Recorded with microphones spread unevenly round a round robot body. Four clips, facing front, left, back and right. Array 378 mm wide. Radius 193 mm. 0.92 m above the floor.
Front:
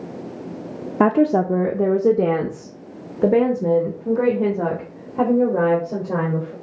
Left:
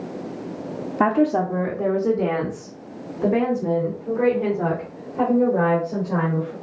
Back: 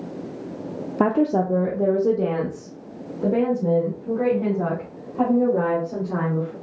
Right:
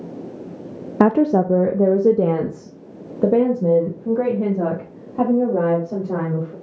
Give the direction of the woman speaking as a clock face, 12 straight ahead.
2 o'clock.